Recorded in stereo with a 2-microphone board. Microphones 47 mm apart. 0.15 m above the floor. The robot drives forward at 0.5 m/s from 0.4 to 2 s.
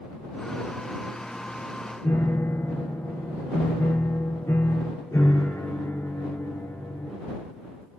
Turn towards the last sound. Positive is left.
turn(degrees=75)  # may be behind; listen again after turning